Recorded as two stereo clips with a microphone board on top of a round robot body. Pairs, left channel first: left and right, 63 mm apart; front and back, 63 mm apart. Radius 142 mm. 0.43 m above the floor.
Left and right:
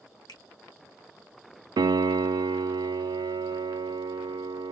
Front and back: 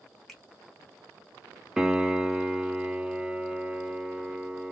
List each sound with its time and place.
0.3 s a finger snap: 85° left, 2.5 m
1.8 s a piano: 100° right, 0.6 m